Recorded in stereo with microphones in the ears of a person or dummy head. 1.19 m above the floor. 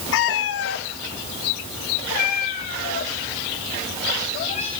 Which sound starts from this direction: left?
A cat meowing, at 0.1 s.